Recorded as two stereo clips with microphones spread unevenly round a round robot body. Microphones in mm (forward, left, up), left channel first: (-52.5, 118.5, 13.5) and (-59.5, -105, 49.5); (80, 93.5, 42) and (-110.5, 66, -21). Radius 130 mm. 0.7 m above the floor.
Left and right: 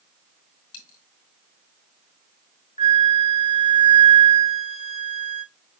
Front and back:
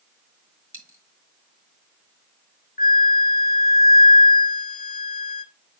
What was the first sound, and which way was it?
A dropped coin, 110° left.